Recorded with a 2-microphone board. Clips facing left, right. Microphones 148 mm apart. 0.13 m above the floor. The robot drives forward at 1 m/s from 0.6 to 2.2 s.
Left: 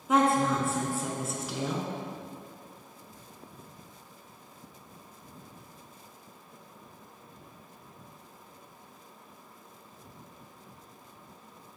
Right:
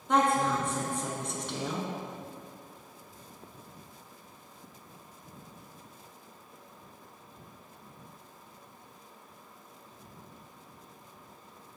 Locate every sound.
0.1 s a woman speaking: 5° left (ahead or behind), 1.0 m